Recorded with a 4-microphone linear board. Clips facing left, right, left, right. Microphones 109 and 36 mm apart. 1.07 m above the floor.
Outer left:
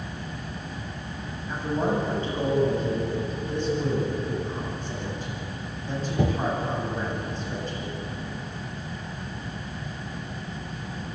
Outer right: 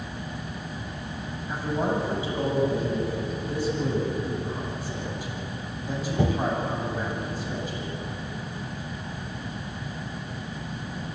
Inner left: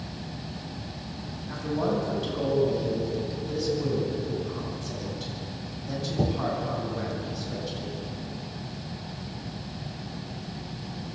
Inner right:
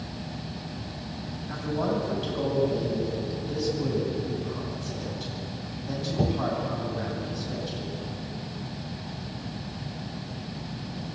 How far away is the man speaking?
About 8.5 m.